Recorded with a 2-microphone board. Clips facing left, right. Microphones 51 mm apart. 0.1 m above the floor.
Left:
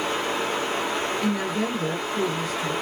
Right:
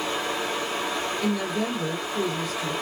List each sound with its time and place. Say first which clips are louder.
0.0 s running water: left 2 dB; 55° left (ahead or behind), 1.9 m
1.2 s a woman speaking: left 1 dB; 45° left (ahead or behind), 1.9 m